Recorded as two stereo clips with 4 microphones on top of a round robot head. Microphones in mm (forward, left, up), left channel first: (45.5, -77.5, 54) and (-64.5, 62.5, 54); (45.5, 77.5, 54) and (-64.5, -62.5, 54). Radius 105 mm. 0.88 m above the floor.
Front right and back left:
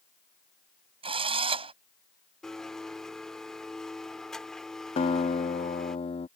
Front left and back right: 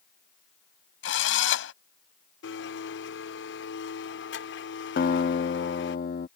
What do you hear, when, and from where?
1.0 s a drill: 65° left
2.4 s a blender: 35° left
5.0 s a guitar: 10° left